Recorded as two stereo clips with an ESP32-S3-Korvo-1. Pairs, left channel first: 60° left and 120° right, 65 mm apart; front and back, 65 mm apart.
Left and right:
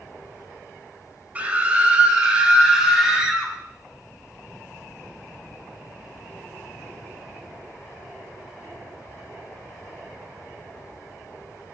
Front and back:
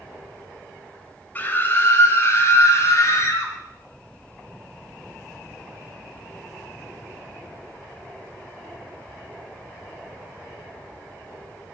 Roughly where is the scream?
Ahead right.